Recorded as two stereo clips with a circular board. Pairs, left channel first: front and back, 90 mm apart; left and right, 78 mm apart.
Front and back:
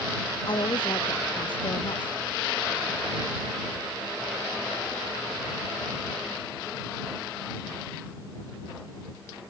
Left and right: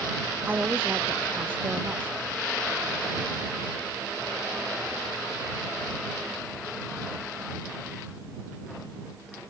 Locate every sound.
0.5 s a woman speaking: 25° right